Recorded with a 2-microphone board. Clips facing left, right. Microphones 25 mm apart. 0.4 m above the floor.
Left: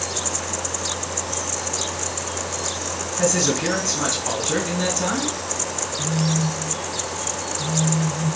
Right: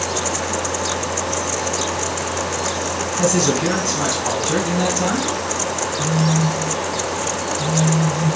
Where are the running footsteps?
No running footsteps in this recording.